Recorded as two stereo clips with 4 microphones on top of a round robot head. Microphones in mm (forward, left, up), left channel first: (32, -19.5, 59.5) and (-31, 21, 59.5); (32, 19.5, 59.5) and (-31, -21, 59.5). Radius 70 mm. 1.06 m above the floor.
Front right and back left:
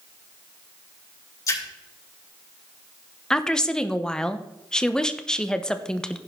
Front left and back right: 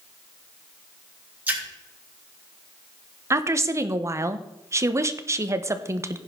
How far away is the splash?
About 6.5 m.